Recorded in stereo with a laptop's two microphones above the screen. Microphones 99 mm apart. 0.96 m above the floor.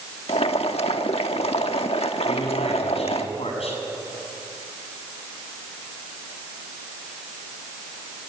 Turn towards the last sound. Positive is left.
turn(degrees=90)